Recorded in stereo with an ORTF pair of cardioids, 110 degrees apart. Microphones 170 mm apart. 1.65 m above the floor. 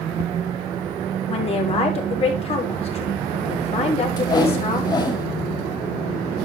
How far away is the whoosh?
About 5.5 m.